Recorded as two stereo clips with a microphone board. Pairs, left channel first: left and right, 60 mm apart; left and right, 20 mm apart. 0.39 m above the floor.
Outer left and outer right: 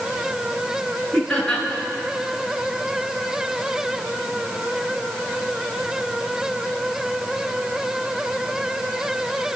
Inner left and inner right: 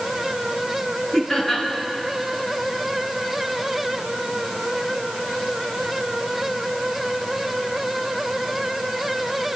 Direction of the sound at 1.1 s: 10° left (ahead or behind).